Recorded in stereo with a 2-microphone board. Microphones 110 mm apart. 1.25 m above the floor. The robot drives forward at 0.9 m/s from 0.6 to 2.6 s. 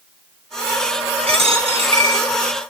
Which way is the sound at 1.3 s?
65° right (ahead or behind).